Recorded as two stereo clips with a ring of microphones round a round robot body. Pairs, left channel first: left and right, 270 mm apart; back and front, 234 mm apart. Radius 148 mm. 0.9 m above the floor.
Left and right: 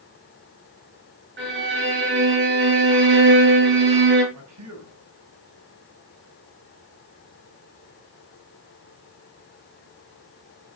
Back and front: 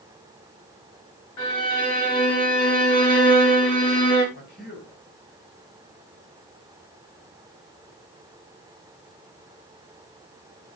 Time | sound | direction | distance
1.4 | a violin | 145° right | 6.5 m
4.3 | a man speaking | 120° right | 6 m